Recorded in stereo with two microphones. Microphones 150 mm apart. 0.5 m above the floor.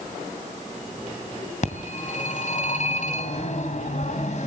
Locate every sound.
1.6 s a phone ringing: 55° left (ahead or behind), 2.5 m